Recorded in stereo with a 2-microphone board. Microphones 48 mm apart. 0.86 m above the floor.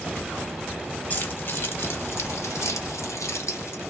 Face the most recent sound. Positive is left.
turn(degrees=65)  # may be behind; listen again after turning